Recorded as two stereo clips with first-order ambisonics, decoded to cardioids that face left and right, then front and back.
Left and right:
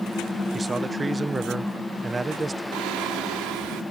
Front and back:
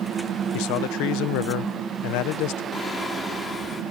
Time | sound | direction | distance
0.5 | a man speaking | 15° right | ?
2.7 | singing | 75° right | ?